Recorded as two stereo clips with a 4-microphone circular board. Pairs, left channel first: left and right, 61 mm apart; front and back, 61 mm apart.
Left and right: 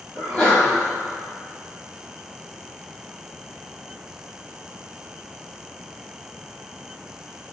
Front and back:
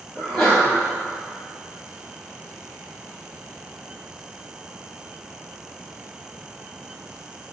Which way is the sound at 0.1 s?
55° left.